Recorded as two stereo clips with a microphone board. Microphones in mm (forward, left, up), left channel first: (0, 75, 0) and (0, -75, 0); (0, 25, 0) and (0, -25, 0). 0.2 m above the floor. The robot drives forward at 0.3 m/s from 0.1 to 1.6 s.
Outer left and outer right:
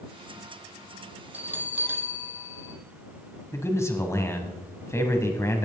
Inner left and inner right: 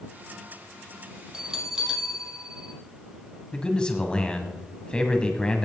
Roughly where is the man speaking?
Centre.